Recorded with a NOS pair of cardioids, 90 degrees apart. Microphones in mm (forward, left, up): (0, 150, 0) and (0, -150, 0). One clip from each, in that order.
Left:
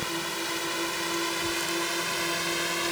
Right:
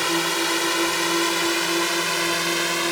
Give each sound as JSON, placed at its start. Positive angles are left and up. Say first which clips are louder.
{"t": 0.0, "sound": "a drone", "louder": "right 9 dB", "azimuth_deg": -70}